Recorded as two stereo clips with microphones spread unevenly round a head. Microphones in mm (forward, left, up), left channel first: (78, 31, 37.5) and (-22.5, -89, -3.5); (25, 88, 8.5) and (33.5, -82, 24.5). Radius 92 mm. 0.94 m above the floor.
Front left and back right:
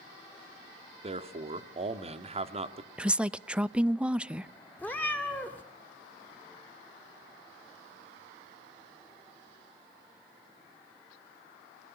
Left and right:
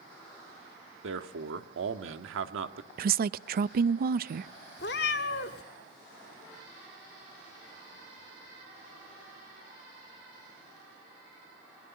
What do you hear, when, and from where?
1.0 s a man speaking: 80° right, 2.0 m
3.0 s a woman speaking: 55° right, 0.6 m
4.8 s a cat meowing: 130° left, 1.5 m